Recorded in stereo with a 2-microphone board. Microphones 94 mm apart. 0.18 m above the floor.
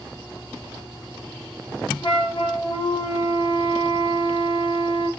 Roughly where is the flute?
Left.